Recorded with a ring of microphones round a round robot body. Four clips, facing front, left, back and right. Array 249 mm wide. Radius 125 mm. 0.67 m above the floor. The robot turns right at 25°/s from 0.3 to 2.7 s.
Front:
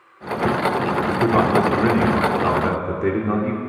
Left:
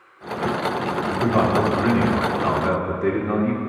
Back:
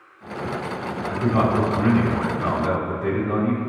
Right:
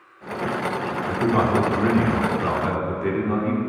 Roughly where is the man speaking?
Ahead.